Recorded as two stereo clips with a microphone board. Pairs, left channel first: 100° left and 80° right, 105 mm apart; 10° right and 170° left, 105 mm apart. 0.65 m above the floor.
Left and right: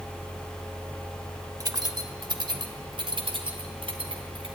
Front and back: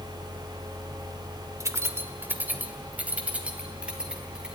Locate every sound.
1.6 s keys jangling: 130° right, 1.2 m; by 4.6 s 110° right, 3.5 m